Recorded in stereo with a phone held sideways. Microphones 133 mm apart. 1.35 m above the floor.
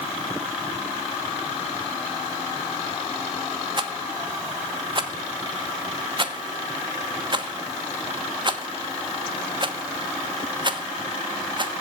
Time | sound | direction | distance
3.8 | a rattle | 35° right (ahead or behind) | 1.1 m